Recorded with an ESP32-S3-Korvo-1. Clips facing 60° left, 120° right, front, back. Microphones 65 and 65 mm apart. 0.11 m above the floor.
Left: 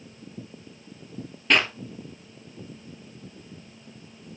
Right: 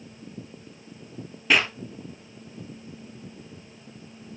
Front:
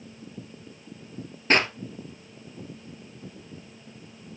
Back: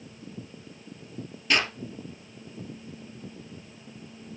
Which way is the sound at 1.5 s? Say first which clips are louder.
Even, front 4 dB; 35° right.